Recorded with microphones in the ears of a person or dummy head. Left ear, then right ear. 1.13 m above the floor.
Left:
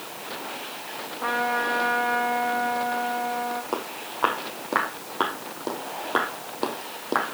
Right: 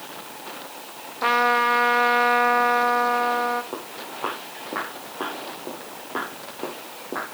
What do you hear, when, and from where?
1.2 s a trumpet: 75° right (ahead or behind), 1.0 m
3.7 s footsteps: 60° left (ahead or behind), 4 m